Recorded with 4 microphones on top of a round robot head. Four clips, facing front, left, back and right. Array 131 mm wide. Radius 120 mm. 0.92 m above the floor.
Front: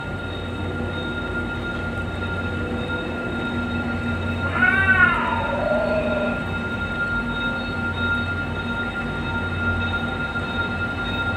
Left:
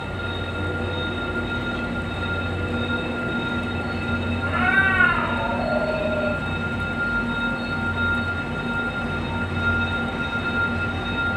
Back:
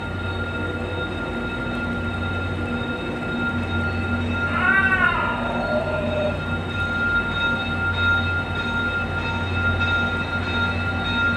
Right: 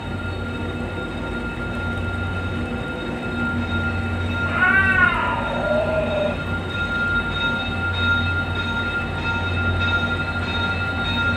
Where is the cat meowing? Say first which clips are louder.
Right 3 dB, front 1 dB; 40° right, 2.5 m.